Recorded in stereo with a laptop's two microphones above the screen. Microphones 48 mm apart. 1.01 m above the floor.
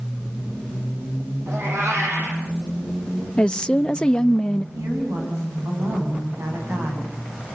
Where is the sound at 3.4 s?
20° left (ahead or behind), 0.8 m.